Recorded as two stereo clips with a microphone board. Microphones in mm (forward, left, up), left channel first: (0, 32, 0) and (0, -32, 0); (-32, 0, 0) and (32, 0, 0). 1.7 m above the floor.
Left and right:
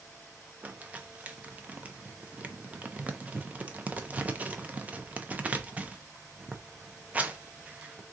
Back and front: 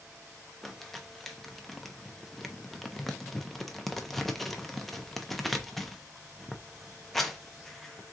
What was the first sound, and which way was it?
Crumpling, 95° right.